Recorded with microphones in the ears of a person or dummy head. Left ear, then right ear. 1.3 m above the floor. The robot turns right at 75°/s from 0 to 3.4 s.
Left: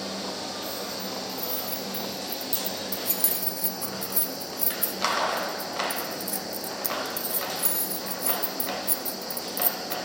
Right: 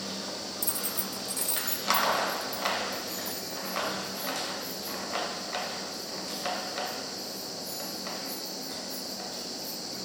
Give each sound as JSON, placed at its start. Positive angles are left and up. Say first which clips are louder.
{"t": 0.6, "sound": "keys jangling", "louder": "left 2 dB", "side_deg": -50, "distance_m": 0.7}